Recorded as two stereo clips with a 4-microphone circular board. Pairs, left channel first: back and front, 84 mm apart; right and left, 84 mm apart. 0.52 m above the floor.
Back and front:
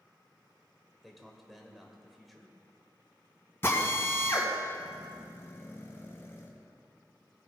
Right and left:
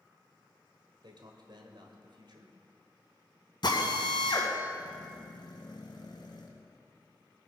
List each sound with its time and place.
1.0 s a man speaking: 90° left, 2.0 m
3.6 s a drill: 120° right, 2 m